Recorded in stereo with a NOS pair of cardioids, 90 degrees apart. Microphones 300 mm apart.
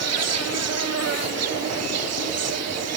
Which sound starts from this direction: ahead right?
An insect, at 0.0 s.